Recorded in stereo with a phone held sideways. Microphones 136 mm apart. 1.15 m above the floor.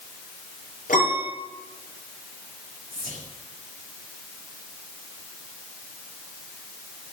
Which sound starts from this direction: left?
A piano, at 0.9 s.